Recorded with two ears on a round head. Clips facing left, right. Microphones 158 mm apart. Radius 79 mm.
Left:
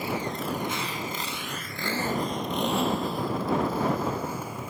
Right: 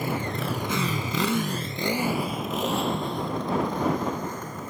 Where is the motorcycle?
45° right (ahead or behind); by 4.7 s 10° left (ahead or behind).